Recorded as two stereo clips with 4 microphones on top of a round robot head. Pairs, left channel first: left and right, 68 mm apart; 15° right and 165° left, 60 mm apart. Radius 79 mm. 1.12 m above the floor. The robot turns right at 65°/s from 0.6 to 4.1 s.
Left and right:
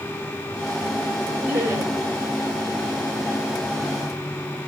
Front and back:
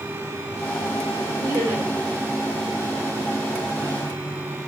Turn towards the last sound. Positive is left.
turn(degrees=5)